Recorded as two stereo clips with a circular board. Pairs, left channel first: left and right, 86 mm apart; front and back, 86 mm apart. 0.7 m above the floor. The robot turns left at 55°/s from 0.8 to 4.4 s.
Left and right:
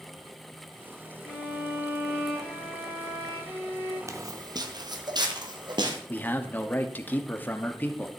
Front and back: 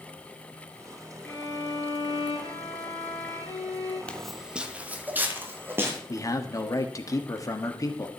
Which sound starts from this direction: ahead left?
A man speaking, at 6.1 s.